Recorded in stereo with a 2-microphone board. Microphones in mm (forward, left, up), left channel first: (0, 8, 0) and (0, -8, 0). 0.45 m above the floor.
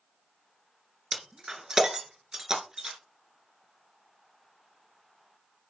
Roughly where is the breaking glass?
Right.